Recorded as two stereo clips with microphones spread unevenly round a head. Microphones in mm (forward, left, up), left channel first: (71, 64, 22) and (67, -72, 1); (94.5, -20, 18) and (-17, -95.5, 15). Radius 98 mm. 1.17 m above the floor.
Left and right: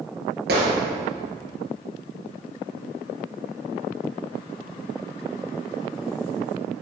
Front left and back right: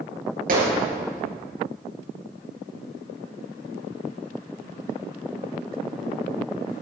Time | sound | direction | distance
0.5 | a gunshot | 130° right | 4.5 m